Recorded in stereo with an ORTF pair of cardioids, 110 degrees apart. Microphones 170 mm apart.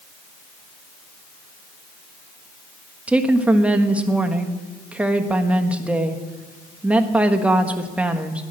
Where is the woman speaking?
5° right, 1.3 m.